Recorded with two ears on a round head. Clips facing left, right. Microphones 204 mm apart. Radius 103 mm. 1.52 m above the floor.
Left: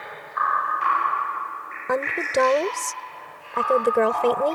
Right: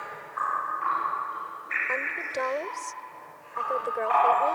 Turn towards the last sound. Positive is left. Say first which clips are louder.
# left 11 dB
turn(degrees=65)  # may be behind; listen again after turning